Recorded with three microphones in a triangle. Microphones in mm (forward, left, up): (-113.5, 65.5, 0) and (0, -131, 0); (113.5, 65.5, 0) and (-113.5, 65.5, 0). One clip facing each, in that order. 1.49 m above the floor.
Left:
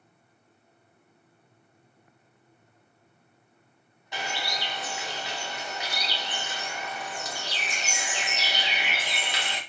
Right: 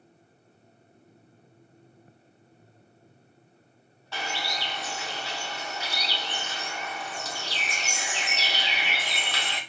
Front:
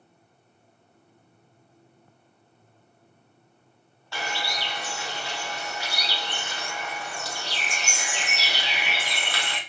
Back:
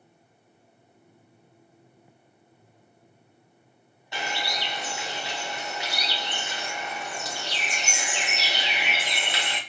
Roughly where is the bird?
Behind.